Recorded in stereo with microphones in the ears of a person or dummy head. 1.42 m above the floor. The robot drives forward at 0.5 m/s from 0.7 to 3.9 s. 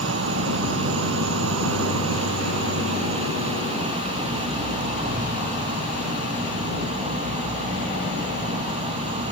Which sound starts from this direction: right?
An insect, at 0.0 s.